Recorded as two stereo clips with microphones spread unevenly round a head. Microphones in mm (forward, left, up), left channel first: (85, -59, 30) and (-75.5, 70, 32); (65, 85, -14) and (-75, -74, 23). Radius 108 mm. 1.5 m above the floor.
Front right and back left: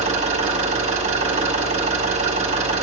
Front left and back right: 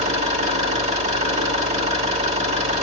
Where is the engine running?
165° right, 1.6 m.